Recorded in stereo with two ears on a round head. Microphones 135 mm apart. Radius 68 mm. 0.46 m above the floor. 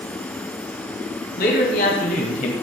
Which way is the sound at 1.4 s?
70° left (ahead or behind).